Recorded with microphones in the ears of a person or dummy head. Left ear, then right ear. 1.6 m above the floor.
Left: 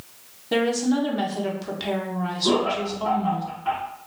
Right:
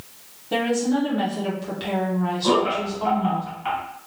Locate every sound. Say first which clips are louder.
0.5 s a woman speaking: even; 20° left (ahead or behind), 0.6 m
2.4 s laughter: right 1 dB; 55° right (ahead or behind), 1.4 m